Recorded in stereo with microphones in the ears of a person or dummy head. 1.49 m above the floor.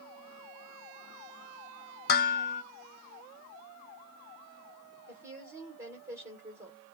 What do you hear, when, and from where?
2.1 s dishes clattering: 60° left (ahead or behind), 0.9 m
5.1 s a woman speaking: 15° right (ahead or behind), 1.6 m